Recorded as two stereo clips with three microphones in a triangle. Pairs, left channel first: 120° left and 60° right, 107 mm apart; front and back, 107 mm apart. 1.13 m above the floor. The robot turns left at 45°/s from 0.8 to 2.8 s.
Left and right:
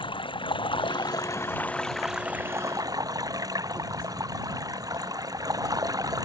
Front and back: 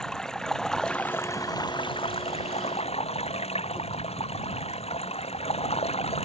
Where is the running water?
85° left; by 6.2 s 5° right.